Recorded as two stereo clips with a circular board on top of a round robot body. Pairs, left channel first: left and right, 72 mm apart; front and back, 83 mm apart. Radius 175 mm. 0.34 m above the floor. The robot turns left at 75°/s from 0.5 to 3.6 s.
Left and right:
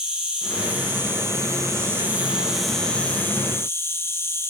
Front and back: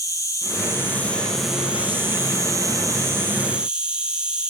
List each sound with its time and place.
0.0 s an insect: 20° right, 2 m; by 4.5 s 110° left, 2 m